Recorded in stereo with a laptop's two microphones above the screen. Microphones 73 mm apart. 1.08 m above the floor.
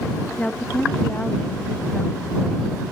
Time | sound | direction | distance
0.4 | a woman speaking | 20° left (ahead or behind) | ?